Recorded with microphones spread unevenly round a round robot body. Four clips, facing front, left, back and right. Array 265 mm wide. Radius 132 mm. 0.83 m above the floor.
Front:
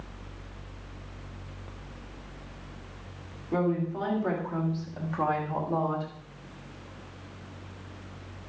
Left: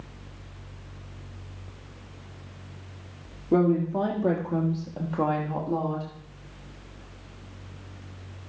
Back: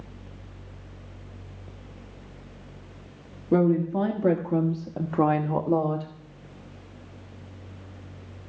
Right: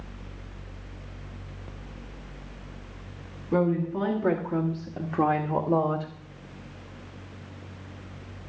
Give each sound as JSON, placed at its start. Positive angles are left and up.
{"t": 3.5, "sound": "a woman speaking", "azimuth_deg": 150, "distance_m": 1.9}